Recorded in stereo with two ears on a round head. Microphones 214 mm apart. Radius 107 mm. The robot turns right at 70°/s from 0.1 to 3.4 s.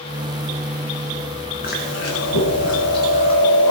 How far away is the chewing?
About 3 m.